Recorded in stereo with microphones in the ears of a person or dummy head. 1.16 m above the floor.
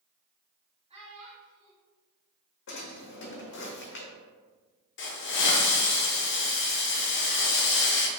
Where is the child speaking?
30° right (ahead or behind), 1.4 m.